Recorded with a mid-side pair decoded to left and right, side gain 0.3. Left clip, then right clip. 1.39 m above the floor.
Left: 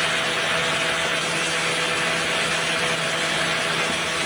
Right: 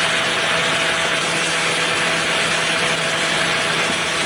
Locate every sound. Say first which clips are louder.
0.0 s a fan: right 4 dB; 55° right, 1.2 m